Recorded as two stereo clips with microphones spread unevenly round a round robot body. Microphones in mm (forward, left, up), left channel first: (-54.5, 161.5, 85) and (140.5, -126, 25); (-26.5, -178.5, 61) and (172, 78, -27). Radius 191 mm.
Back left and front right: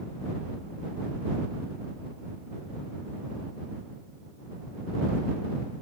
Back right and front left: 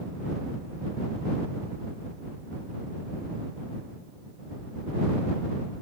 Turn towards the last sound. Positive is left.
No sound to turn to.